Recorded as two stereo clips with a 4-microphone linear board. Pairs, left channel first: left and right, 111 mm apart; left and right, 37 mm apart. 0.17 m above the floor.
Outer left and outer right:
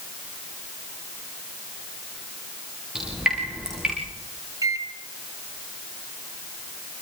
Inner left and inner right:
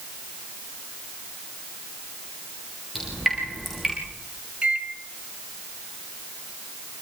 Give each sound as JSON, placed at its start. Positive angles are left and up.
{"t": 3.0, "sound": "dripping", "side_deg": -5, "distance_m": 9.0}
{"t": 4.6, "sound": "a microwave", "side_deg": -35, "distance_m": 1.4}